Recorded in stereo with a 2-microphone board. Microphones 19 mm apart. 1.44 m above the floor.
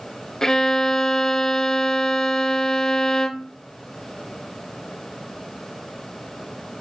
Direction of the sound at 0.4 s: 35° left (ahead or behind).